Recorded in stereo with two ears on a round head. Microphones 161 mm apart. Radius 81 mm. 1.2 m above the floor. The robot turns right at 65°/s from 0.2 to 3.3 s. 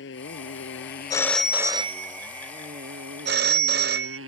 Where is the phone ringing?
160° left; by 4.2 s 55° right.